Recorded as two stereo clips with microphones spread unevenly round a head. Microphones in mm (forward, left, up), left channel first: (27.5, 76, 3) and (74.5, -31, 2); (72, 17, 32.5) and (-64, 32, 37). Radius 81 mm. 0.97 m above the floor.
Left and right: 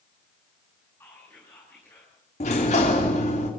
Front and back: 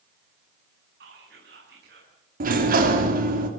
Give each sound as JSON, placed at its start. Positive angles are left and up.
{"t": 1.0, "sound": "whispering", "azimuth_deg": -170, "distance_m": 9.0}
{"t": 2.4, "sound": "a sliding door", "azimuth_deg": 160, "distance_m": 3.0}